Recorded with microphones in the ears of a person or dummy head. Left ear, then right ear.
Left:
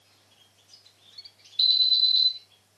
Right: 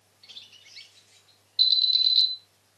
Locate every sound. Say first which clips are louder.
1.6 s an alarm: even; 20° right (ahead or behind), 4.5 m